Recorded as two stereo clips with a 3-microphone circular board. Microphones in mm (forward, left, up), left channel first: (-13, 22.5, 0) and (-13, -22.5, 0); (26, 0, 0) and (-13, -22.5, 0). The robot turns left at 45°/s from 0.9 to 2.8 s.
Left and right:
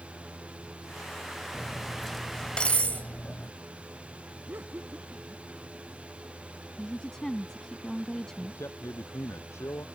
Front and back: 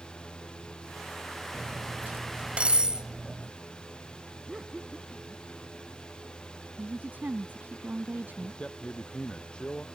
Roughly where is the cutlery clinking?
Behind.